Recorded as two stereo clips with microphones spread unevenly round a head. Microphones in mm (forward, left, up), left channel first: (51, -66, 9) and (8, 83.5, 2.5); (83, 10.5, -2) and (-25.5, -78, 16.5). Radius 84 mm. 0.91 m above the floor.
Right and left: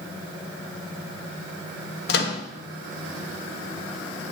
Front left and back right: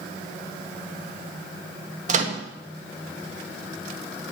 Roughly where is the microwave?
Right.